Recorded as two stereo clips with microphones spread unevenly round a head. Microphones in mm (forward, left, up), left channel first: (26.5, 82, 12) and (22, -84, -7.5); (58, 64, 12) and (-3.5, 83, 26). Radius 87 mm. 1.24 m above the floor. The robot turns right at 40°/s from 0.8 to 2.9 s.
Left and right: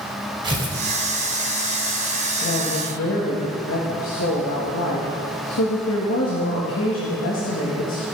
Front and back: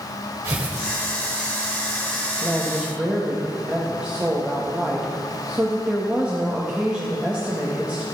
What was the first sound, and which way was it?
Tearing paper, 155° right.